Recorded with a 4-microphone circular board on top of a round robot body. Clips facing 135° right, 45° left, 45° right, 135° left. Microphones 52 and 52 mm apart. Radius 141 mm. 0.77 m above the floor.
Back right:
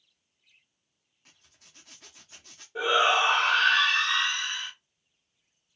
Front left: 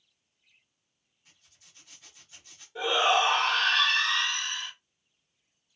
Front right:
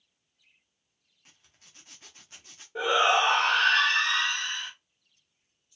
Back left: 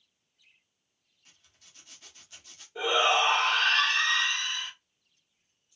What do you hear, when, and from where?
1.2 s a zipper: 100° right, 0.6 m
2.8 s a shout: 85° right, 1.6 m